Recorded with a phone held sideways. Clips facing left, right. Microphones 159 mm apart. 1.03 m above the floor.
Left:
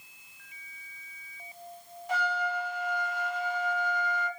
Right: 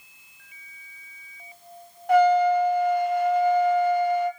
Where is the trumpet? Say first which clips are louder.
Right 15 dB; 60° right (ahead or behind), 0.9 m.